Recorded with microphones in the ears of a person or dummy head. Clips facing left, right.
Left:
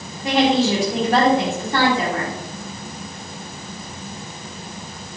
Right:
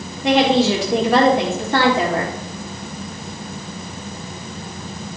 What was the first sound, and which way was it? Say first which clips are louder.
A woman speaking: right 2 dB; 55° right (ahead or behind).